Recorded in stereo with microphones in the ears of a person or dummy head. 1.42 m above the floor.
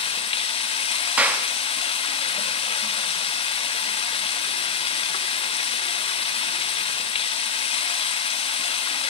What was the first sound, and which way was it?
Running water, 30° left (ahead or behind).